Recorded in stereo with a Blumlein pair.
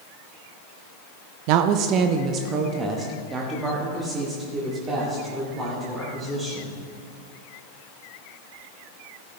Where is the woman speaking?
45° right, 0.5 m; by 6.8 s 15° right, 3.5 m.